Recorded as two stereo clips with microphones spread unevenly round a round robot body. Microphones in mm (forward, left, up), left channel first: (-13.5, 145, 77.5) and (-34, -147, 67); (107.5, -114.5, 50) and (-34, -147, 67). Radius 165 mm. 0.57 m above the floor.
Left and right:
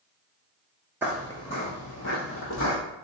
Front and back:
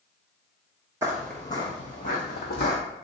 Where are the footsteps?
175° right, 0.5 m; by 2.8 s 40° left, 1.2 m.